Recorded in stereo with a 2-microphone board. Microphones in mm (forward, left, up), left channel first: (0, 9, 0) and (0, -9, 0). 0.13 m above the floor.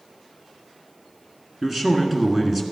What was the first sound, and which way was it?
A man speaking, 15° right (ahead or behind).